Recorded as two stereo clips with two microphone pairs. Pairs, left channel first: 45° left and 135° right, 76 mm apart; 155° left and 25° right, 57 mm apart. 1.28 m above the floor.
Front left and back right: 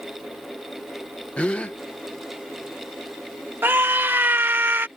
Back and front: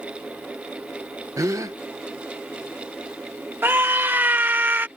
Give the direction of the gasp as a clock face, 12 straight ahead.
1 o'clock.